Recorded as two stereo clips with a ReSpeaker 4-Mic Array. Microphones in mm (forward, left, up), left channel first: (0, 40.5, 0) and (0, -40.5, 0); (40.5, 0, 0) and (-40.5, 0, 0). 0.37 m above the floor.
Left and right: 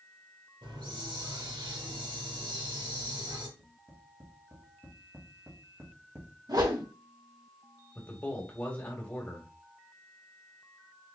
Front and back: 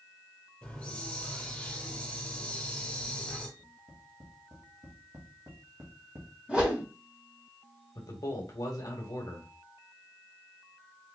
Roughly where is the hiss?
Right.